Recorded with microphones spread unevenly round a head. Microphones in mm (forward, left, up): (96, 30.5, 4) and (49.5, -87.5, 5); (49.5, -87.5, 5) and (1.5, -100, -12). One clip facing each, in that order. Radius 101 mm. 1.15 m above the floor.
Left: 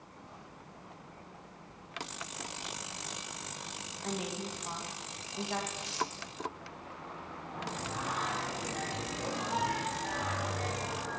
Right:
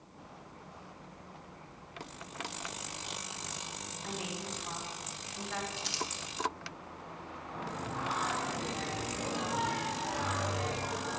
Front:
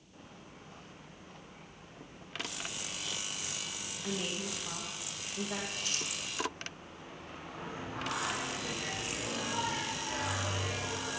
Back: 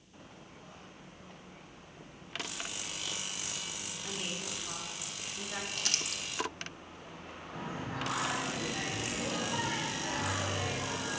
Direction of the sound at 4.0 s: 15° left.